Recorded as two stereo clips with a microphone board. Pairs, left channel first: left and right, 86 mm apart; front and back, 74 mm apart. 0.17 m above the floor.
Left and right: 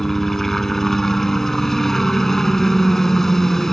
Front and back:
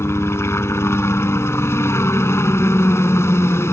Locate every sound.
0.0 s a helicopter: 5° left